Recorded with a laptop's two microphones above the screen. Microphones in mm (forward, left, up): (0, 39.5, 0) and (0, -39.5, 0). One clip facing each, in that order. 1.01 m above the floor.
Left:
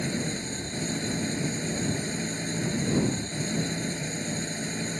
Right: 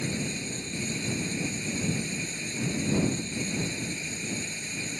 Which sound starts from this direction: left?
An engine running, at 0.0 s.